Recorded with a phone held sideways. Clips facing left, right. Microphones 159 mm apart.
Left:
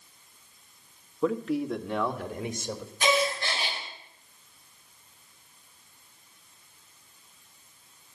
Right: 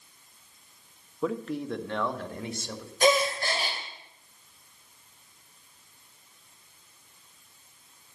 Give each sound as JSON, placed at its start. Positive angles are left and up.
{"t": 1.2, "sound": "a man speaking", "side_deg": 0, "distance_m": 1.2}
{"t": 3.0, "sound": "a gasp", "side_deg": -40, "distance_m": 3.0}